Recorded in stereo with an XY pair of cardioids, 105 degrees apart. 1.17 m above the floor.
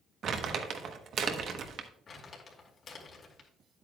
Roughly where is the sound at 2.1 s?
Ahead left.